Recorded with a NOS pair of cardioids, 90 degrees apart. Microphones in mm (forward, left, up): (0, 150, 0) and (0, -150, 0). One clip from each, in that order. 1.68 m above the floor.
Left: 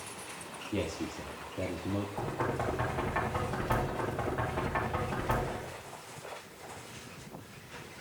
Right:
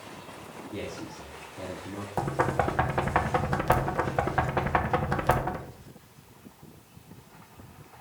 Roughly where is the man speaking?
Ahead left.